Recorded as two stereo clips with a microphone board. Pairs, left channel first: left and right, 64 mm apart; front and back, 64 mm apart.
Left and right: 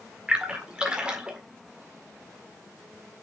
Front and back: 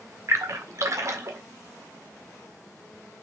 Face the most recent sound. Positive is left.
turn(degrees=-165)